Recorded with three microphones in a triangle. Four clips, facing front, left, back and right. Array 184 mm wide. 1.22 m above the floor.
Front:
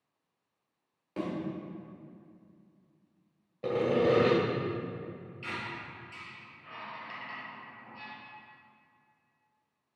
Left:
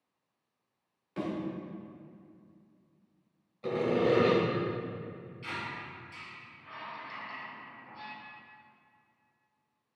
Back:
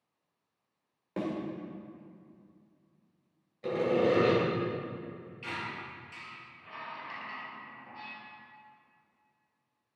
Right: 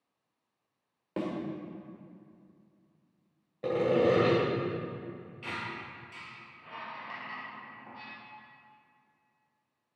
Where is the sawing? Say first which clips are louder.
Right 2 dB, front 1 dB; 50° right, 2 m.